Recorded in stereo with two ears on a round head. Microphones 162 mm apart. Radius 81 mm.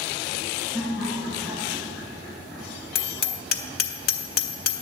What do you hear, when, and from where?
0.7 s laughter: 15° right (ahead or behind), 5 m; by 2.9 s 5° right (ahead or behind), 6 m
3.0 s hammering: 55° left (ahead or behind), 1.1 m